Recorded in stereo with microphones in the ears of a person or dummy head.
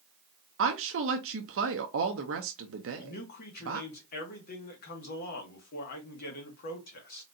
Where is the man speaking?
55° left (ahead or behind), 1.9 m.